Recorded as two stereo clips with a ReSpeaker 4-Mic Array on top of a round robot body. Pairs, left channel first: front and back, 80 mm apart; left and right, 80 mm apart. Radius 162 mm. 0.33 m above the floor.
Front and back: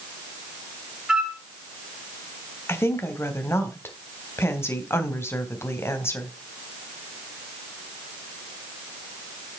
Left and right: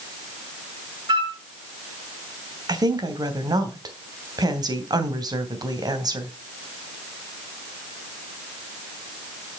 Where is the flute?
100° right, 3 m.